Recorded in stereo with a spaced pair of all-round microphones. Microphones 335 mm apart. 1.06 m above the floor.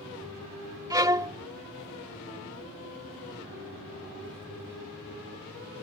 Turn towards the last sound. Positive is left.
turn(degrees=-10)  # may be behind; listen again after turning